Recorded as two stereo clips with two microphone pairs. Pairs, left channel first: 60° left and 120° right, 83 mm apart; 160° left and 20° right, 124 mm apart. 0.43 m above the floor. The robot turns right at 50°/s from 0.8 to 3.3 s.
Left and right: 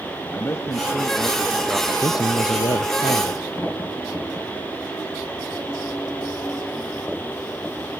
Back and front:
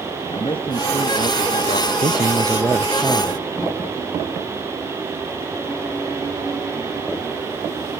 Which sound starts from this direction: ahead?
A man speaking, at 2.0 s.